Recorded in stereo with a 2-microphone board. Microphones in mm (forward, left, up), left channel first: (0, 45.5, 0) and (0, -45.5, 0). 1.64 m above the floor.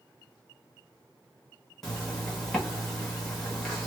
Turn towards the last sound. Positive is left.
turn(degrees=5)  # may be behind; listen again after turning